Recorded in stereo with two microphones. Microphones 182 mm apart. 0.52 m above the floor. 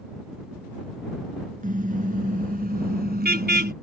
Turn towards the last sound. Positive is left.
turn(degrees=-65)  # may be behind; listen again after turning